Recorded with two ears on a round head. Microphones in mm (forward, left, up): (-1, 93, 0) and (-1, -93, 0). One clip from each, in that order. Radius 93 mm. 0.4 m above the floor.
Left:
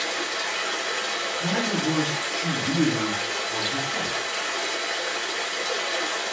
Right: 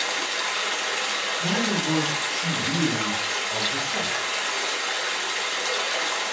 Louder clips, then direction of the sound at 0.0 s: Right 1 dB; 35° right (ahead or behind).